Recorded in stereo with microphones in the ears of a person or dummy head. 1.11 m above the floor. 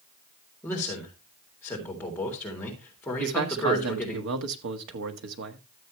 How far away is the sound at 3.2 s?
About 1.6 m.